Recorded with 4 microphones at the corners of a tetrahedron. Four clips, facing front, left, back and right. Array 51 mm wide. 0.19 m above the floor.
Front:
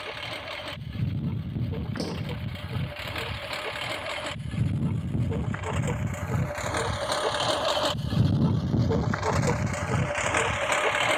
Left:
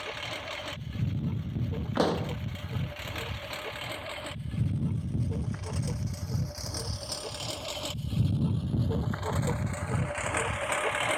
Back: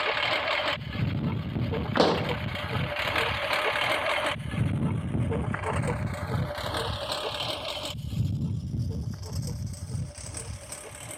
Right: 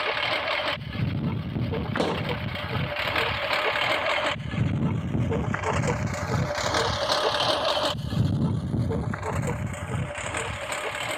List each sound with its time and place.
0.0 s a lawn mower: 130° right; by 11.2 s 15° left
2.0 s a pop: 175° right